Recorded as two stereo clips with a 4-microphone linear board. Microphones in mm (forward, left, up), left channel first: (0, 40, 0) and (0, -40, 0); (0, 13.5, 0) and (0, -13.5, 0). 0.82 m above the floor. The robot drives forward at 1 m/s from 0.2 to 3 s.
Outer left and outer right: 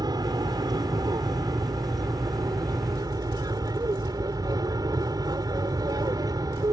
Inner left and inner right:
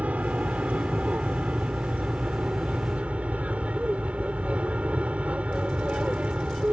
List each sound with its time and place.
0.0 s an aircraft: 60° right (ahead or behind); by 6.7 s 55° right (ahead or behind)